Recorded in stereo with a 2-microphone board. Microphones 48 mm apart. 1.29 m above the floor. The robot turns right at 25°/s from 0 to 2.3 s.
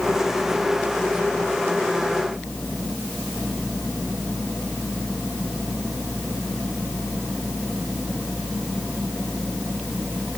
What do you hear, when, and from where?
Only background noise.